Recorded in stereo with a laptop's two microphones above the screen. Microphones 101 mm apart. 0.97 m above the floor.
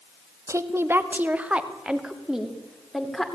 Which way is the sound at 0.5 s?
30° right (ahead or behind).